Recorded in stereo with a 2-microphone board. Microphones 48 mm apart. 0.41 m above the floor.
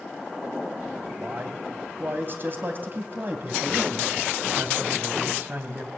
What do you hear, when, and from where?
1.2 s a man speaking: 45° right (ahead or behind), 3 m